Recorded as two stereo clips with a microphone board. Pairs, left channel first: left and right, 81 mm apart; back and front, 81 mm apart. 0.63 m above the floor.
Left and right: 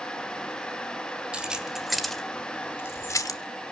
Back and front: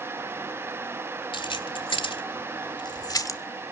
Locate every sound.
1.3 s keys jangling: 170° right, 1.8 m; by 3.4 s 130° left, 1.1 m